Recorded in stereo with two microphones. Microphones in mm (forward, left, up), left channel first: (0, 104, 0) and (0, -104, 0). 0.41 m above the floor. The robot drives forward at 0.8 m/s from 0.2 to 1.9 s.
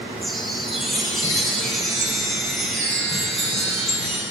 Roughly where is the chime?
Centre.